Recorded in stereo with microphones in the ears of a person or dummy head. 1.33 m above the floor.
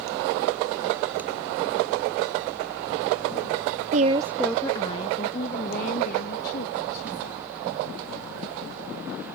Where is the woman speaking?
45° right (ahead or behind); by 7.4 s 50° left (ahead or behind).